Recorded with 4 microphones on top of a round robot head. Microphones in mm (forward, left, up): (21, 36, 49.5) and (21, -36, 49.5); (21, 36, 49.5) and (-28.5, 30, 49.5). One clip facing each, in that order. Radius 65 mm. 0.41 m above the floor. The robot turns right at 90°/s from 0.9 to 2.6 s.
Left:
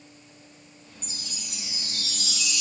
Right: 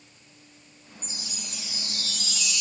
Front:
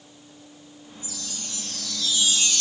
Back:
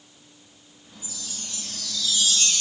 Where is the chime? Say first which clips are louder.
Right 1 dB, front 1 dB; 40° right, 3 m; by 2.6 s 105° left, 3 m.